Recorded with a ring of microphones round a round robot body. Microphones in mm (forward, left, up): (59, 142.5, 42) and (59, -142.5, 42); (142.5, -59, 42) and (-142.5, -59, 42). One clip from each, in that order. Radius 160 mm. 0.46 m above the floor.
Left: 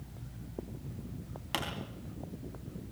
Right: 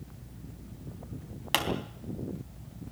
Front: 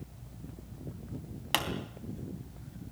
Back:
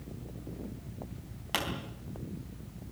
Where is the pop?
45° right, 3.5 m.